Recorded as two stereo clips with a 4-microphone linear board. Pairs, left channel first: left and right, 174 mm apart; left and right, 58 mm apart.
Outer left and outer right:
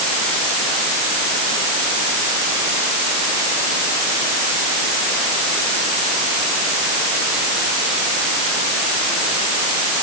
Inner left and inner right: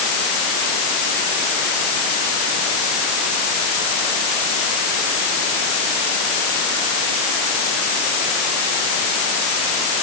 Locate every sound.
Only background noise.